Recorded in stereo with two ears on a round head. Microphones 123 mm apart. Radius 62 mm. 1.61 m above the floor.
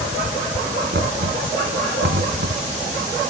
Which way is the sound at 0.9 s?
85° right.